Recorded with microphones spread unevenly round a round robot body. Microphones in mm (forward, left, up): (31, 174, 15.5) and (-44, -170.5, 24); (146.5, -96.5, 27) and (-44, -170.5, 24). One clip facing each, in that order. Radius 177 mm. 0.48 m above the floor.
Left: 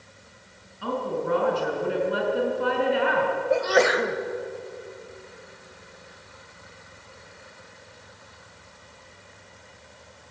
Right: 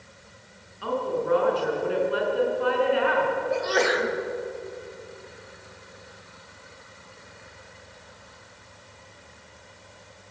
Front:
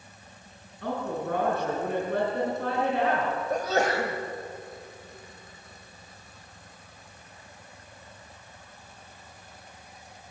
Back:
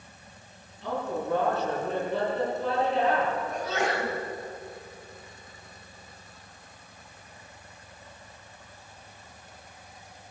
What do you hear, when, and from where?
0.8 s a woman speaking: 85° left, 6 m
3.5 s a sneeze: 85° left, 2 m